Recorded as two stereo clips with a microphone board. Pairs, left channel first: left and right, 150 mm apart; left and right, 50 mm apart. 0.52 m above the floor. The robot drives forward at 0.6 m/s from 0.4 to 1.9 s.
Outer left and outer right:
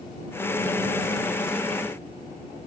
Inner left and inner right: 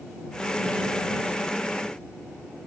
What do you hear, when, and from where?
Only background noise.